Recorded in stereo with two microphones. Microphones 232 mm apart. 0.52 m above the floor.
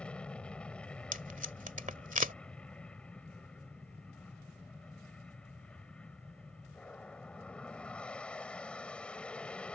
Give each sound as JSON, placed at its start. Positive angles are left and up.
{"t": 0.0, "sound": "an aircraft", "side_deg": 5}
{"t": 1.1, "sound": "tape being pulled", "side_deg": -35}